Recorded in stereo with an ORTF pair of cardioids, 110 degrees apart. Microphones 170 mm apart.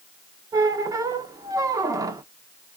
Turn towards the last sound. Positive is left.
turn(degrees=-20)